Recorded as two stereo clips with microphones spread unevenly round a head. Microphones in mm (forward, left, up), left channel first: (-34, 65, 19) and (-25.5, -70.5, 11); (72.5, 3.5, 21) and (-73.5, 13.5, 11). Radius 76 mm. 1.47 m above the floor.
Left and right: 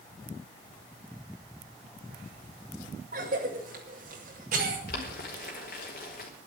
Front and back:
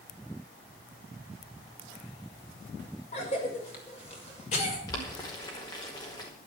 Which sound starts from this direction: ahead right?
A cough, at 3.1 s.